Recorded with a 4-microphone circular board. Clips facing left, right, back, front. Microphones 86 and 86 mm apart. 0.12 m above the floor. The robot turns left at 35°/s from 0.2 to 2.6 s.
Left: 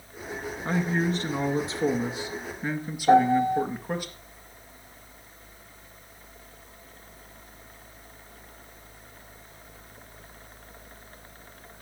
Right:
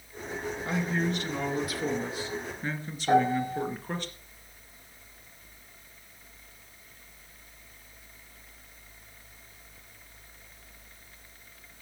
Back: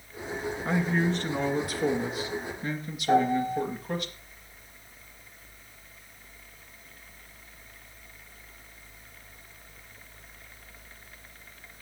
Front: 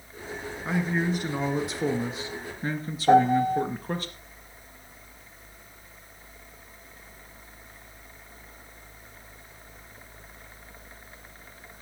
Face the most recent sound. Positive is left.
turn(degrees=20)